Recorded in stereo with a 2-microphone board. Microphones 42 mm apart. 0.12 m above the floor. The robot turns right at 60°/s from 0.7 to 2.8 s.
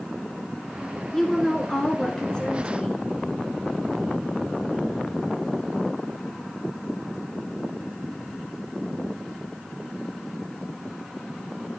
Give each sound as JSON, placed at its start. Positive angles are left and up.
{"t": 1.1, "sound": "a woman speaking", "side_deg": 10, "distance_m": 1.2}